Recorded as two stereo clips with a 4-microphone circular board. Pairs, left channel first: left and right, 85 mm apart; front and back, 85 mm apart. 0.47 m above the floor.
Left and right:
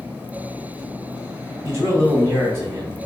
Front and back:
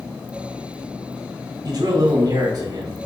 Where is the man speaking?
150° right, 3.5 m.